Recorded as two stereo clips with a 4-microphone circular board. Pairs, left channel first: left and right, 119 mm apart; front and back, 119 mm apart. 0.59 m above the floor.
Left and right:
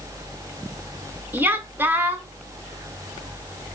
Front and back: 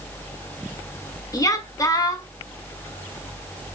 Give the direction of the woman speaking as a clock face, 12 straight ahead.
1 o'clock.